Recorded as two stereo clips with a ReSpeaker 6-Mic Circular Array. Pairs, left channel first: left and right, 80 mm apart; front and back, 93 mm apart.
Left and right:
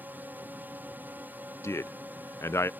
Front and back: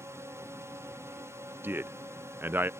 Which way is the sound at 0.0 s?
140° right.